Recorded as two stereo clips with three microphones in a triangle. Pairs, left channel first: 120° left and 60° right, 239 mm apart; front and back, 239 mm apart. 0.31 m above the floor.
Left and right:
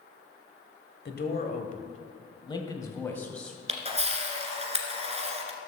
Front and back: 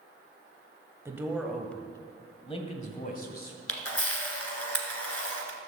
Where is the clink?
I don't hear a clink.